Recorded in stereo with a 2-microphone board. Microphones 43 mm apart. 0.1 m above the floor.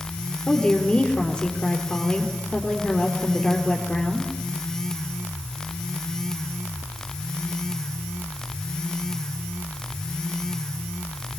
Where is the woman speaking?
20° left (ahead or behind), 3 m.